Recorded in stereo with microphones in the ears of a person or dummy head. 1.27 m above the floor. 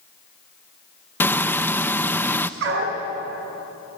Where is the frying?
5° left (ahead or behind), 0.6 m.